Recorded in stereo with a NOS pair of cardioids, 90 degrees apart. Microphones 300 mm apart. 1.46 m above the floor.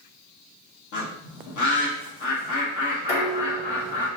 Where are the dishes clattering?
40° left, 1.7 m.